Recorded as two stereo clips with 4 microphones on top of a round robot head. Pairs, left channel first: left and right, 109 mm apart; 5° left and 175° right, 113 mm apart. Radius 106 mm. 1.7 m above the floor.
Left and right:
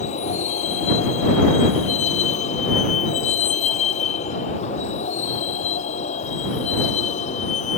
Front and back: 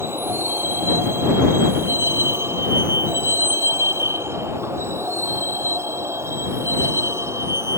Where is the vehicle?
115° left; by 7.8 s 120° left.